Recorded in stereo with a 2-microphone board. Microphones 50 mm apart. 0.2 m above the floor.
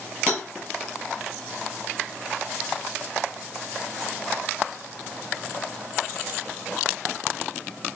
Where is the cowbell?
25° left (ahead or behind), 2 m.